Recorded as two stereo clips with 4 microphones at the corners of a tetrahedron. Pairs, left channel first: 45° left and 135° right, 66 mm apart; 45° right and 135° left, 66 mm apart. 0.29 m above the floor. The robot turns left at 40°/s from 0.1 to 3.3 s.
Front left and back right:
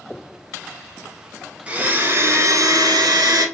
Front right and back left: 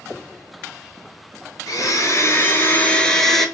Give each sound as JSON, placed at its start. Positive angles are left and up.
{"t": 1.7, "sound": "a blender", "azimuth_deg": -65, "distance_m": 0.7}